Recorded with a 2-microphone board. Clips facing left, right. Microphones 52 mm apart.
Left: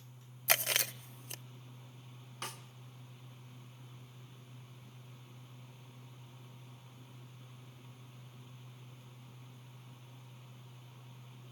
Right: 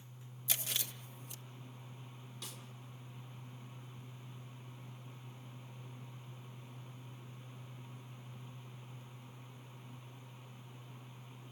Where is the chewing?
65° left (ahead or behind), 0.7 m.